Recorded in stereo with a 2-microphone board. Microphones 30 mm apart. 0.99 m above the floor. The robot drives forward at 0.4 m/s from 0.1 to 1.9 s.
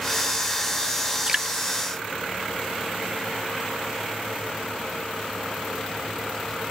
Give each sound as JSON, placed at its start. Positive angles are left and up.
{"t": 1.3, "sound": "dripping", "side_deg": -25}